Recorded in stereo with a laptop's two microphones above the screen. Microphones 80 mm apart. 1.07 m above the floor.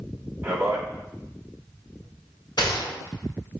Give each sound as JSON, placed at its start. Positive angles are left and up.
{"t": 0.4, "sound": "a man speaking", "side_deg": -30, "distance_m": 1.4}
{"t": 2.6, "sound": "a gunshot", "side_deg": 75, "distance_m": 2.5}